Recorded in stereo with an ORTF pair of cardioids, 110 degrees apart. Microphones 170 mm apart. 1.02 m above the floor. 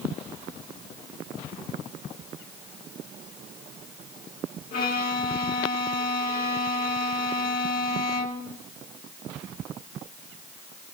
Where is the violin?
65° left, 4 m.